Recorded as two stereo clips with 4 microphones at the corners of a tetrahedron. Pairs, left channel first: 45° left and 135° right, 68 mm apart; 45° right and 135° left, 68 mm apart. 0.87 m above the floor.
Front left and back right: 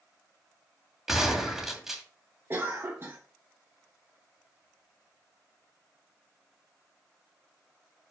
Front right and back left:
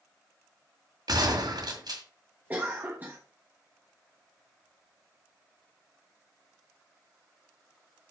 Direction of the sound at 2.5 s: 170° right.